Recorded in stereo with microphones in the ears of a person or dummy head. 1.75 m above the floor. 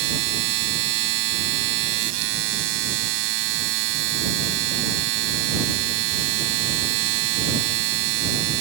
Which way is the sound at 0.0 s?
65° right (ahead or behind).